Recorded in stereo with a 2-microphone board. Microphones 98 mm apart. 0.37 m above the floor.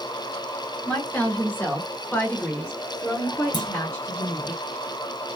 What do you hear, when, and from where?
0.8 s a woman speaking: 15° left (ahead or behind), 1.3 m; by 4.5 s 10° left (ahead or behind), 1.6 m
3.5 s a clunk: 50° left (ahead or behind), 0.8 m